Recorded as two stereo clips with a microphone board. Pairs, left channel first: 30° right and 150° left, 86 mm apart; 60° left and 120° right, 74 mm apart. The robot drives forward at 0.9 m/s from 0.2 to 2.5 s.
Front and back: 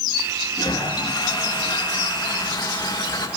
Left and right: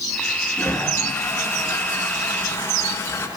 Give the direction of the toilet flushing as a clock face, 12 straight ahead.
12 o'clock.